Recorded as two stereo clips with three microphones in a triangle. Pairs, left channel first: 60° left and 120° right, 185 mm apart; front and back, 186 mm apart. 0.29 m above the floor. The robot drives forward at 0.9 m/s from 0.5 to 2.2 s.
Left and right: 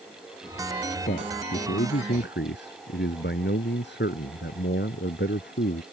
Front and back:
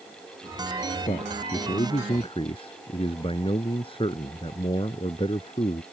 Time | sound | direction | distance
1.1 | a man speaking | 50° left | ?